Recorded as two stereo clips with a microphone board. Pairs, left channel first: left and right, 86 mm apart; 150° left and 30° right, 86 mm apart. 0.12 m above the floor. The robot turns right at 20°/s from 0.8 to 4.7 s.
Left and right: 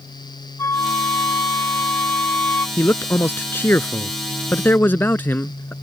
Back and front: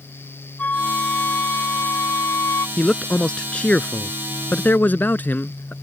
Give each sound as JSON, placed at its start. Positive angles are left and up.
{"t": 0.6, "sound": "a flute", "azimuth_deg": 95}
{"t": 2.8, "sound": "a man speaking", "azimuth_deg": 80}